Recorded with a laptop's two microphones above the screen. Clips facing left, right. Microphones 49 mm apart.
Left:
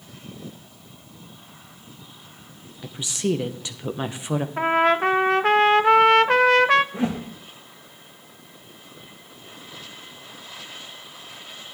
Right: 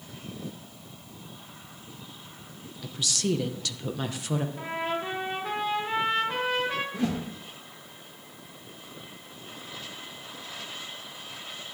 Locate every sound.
2.8 s a woman speaking: 20° left (ahead or behind), 0.7 m
4.6 s a trumpet: 75° left (ahead or behind), 0.5 m
6.9 s a whoosh: 25° left (ahead or behind), 1.3 m